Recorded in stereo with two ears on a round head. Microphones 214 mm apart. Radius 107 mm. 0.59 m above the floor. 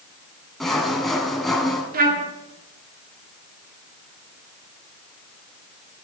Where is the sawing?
Centre (ahead or behind), 2.5 m.